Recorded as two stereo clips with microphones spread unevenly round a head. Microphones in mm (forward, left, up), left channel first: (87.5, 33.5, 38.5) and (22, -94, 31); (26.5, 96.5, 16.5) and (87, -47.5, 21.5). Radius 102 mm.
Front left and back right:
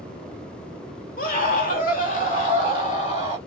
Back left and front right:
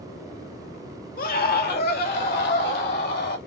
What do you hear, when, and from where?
1.2 s a scream: 90° left, 1.6 m; by 3.4 s 115° left, 2.5 m